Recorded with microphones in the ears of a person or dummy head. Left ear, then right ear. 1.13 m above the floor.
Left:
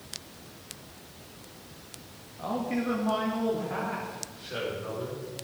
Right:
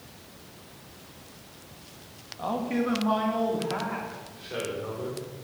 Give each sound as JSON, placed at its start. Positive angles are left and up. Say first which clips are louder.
{"t": 2.4, "sound": "a man speaking", "louder": "right 3 dB", "side_deg": -25, "distance_m": 1.9}